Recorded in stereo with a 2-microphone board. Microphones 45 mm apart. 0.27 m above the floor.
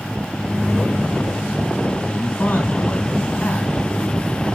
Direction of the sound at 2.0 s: 45° left (ahead or behind).